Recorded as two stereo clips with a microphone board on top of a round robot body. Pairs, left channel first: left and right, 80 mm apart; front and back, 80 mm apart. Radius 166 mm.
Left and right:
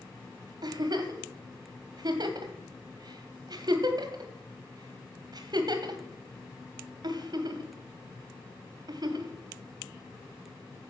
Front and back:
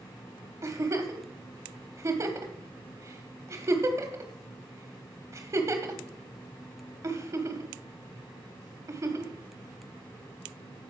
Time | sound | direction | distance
0.6 | a giggle | 130° right | 1.2 m